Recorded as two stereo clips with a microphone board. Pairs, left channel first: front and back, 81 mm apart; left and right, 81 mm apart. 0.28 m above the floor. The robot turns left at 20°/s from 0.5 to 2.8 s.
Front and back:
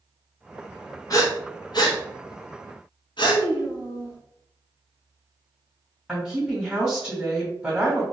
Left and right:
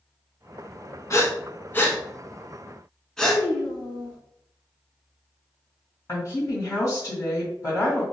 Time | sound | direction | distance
1.1 | breathing | 40° left | 0.8 m
3.2 | a child speaking | 30° left | 1.9 m
6.1 | a woman speaking | 100° left | 1.9 m